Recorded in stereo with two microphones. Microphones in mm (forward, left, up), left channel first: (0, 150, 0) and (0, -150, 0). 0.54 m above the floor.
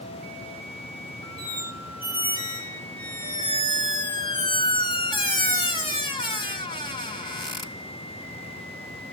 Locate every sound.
1.4 s a squeak: 15° left (ahead or behind), 2 m